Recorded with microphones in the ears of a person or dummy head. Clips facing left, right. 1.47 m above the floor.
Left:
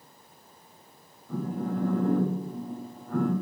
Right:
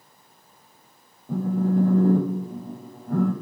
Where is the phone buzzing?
40° right (ahead or behind), 0.6 m.